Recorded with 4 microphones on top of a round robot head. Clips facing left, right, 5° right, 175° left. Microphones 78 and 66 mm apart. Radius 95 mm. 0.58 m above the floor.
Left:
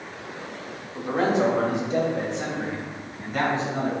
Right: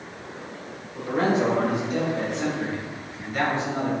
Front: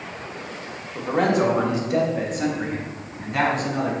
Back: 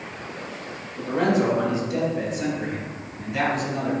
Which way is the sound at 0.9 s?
25° left.